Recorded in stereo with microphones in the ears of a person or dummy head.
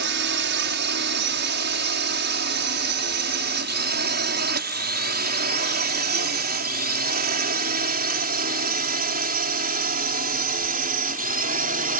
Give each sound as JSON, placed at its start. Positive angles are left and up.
{"t": 0.0, "sound": "a drone", "side_deg": -55}